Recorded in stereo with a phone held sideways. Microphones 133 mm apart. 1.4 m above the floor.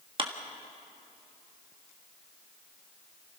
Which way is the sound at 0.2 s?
40° right (ahead or behind).